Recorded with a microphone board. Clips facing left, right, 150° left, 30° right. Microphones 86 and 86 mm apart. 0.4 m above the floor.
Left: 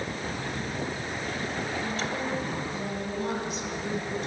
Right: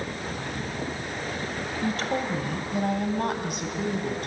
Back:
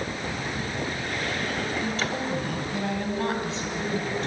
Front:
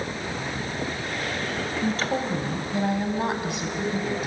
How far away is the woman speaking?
About 2 m.